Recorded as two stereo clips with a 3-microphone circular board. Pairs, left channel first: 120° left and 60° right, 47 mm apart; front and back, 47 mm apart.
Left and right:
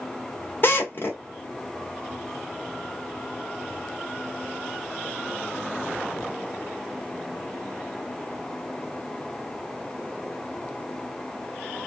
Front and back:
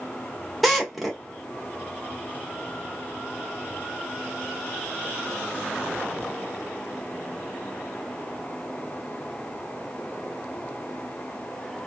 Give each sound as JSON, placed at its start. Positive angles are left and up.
{"t": 0.6, "sound": "a drill", "azimuth_deg": 90, "distance_m": 1.3}